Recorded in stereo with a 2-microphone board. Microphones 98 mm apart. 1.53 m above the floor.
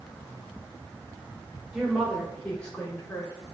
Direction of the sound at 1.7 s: 5° right (ahead or behind).